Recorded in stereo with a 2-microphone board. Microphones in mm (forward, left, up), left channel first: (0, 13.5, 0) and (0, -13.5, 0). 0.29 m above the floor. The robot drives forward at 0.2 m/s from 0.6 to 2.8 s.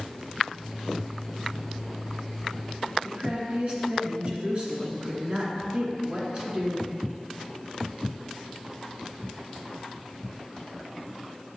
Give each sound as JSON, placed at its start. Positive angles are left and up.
{"t": 3.0, "sound": "a woman speaking", "side_deg": -45, "distance_m": 2.5}